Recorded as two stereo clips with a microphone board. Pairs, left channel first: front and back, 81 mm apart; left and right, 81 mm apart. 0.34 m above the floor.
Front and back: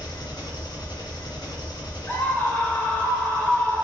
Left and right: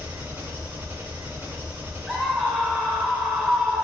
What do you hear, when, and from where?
0.0 s an engine running: 20° right, 2.5 m
2.1 s a scream: straight ahead, 1.3 m